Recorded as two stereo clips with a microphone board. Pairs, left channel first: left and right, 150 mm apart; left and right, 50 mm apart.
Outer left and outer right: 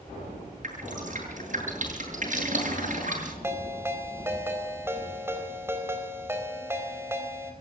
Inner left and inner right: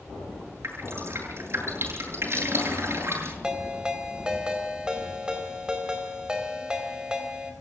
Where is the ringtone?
15° right (ahead or behind), 4 m.